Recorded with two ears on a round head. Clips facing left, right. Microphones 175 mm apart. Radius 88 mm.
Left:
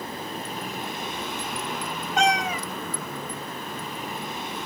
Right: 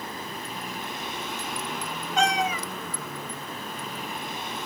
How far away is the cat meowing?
About 1.4 m.